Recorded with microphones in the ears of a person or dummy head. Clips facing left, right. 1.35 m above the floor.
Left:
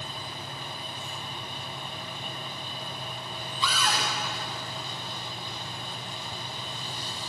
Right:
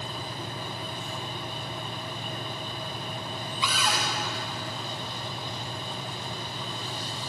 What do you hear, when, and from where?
3.6 s a cupboard door: 15° right (ahead or behind), 1.7 m